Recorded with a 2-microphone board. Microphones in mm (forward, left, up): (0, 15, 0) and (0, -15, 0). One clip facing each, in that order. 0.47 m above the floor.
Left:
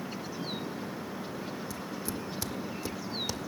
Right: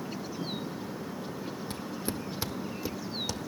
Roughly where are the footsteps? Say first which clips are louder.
Right 1 dB; right.